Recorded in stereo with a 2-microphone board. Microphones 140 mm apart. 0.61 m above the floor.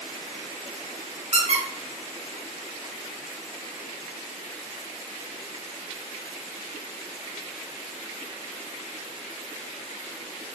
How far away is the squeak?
About 1.2 m.